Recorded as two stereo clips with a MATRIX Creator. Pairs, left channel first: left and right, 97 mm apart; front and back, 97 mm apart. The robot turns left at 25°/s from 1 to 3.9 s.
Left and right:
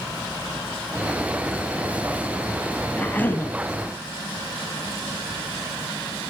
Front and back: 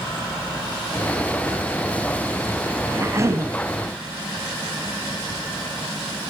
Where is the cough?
155° left, 1.2 m; by 3.5 s 140° left, 1.2 m.